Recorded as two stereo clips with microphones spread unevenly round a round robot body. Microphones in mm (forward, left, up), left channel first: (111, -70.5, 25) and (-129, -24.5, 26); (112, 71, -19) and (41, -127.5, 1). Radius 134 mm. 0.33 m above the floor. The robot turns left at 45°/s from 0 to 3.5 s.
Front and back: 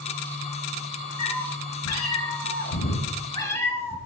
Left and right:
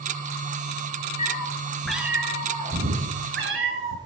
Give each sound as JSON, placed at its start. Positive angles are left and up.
{"t": 1.2, "sound": "a cat meowing", "azimuth_deg": 15, "distance_m": 3.0}